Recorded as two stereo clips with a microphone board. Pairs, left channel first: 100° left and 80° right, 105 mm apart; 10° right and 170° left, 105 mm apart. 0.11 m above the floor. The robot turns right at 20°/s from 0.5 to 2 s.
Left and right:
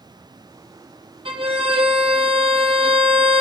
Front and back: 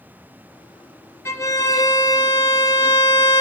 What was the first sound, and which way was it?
A violin, 70° right.